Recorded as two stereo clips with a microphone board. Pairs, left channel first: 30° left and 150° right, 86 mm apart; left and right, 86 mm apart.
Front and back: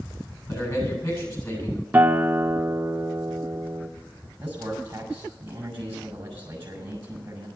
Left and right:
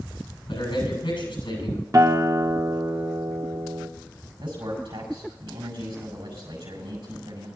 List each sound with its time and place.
0.5 s a man speaking: 70° left, 7 m
1.9 s a guitar: 100° right, 0.6 m
4.4 s a man speaking: 85° right, 6.5 m